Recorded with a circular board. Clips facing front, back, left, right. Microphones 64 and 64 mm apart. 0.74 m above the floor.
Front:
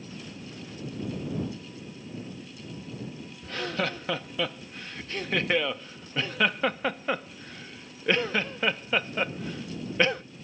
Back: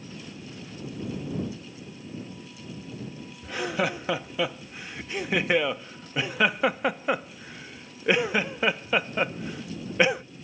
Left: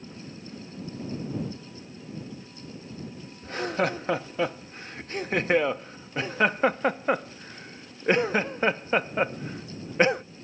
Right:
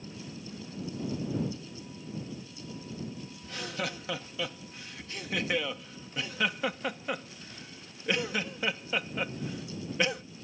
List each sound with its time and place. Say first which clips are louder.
3.4 s laughter: back 3 dB, left 10 dB; 110° left